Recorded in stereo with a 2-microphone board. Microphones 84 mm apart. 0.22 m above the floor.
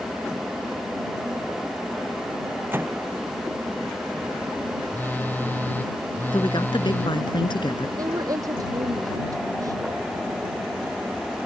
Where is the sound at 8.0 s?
45° right (ahead or behind).